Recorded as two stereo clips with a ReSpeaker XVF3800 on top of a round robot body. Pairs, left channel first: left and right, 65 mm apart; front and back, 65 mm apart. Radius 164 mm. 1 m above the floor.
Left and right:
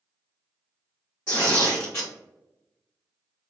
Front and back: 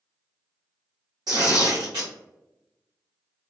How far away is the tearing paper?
About 0.9 m.